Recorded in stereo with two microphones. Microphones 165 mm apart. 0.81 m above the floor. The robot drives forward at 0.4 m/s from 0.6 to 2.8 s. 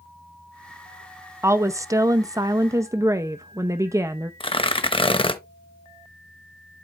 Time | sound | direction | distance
1.4 | a woman speaking | 20° right (ahead or behind) | 0.6 m
4.4 | tearing paper | 35° left (ahead or behind) | 0.7 m